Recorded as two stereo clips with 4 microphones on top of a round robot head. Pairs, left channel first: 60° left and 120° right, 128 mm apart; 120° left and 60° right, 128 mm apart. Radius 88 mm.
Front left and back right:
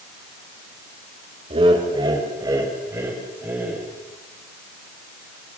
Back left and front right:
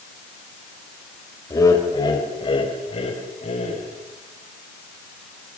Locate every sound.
1.5 s laughter: 170° right, 3.5 m; by 3.9 s 160° left, 4.5 m